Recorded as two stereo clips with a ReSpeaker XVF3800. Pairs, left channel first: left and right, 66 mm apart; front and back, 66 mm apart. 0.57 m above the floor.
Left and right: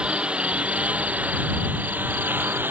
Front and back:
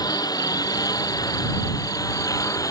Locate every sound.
0.0 s a lawn mower: 15° right; by 2.7 s 30° right